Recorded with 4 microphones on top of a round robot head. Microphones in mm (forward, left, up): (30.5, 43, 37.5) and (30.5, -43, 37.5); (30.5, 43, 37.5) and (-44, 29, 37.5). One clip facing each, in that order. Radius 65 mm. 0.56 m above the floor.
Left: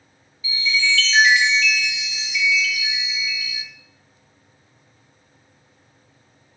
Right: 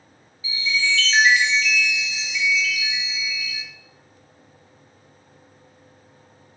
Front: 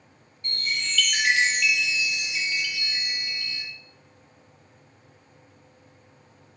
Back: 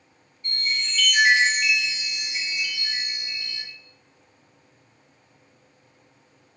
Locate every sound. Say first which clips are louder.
0.4 s a chime: left 1 dB, even; 35° right, 4 m